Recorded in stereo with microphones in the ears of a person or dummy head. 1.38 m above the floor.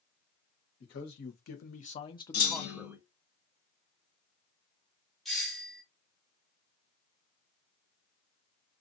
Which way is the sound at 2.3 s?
60° left (ahead or behind).